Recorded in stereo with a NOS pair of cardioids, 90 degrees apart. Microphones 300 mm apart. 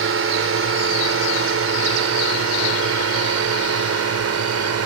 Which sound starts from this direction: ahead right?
A drone, at 0.0 s.